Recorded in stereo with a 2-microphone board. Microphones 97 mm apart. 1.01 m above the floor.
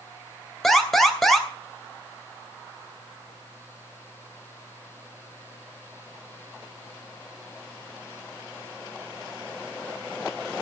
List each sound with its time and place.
0.6 s an alarm: centre (ahead or behind), 3 m